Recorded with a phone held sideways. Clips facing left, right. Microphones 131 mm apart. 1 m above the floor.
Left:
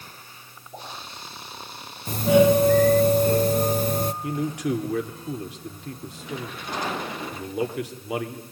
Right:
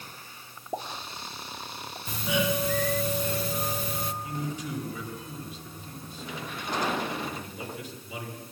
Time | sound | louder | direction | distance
0.7 | a pop | right 4 dB | 60° right (ahead or behind) | 3 m
2.1 | a doorbell | left 12 dB | 45° left (ahead or behind) | 0.8 m
4.2 | a man speaking | left 8 dB | 80° left | 2.5 m